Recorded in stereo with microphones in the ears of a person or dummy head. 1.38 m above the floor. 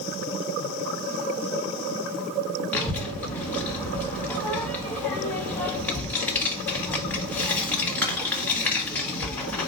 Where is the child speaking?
5° left (ahead or behind), 0.8 m.